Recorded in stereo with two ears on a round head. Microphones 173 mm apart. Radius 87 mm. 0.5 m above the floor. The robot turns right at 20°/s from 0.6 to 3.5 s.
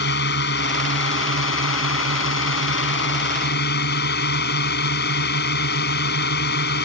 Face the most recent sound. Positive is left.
turn(degrees=115)